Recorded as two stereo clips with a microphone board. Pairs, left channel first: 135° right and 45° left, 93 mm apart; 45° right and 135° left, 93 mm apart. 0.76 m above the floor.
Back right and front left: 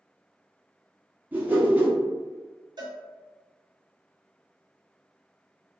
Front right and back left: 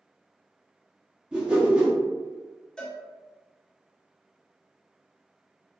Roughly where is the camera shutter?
I don't hear a camera shutter.